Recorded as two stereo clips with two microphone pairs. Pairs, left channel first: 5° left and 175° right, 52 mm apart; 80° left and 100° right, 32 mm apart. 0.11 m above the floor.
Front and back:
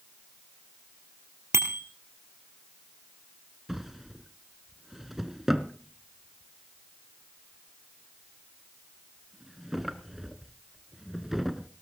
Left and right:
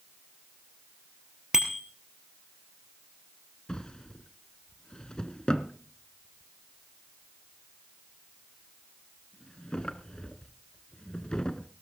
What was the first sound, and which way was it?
A bicycle bell, 170° right.